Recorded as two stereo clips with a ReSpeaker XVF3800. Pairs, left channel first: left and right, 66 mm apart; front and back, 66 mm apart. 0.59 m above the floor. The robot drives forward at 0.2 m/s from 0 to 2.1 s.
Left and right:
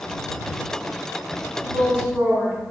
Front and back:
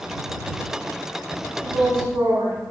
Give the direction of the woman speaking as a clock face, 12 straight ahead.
5 o'clock.